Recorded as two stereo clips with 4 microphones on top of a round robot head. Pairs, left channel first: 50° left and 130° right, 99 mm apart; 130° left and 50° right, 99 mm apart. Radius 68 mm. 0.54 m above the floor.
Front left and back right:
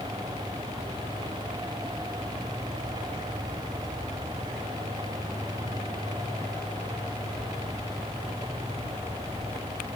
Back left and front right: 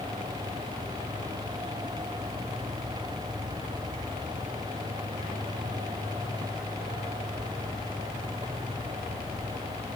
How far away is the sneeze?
I don't hear a sneeze.